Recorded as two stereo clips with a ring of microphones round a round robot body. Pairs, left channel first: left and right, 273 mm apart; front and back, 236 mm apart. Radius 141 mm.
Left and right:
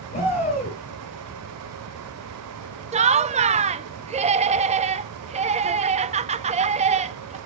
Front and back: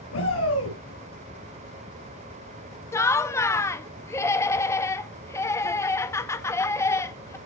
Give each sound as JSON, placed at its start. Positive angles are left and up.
{"t": 0.1, "sound": "a shout", "azimuth_deg": 30, "distance_m": 7.5}
{"t": 2.9, "sound": "laughter", "azimuth_deg": -65, "distance_m": 0.6}